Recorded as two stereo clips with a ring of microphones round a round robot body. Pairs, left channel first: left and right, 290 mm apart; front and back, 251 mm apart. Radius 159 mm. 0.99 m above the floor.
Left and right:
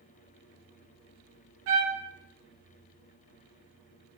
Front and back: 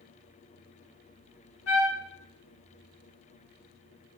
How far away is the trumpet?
About 0.5 m.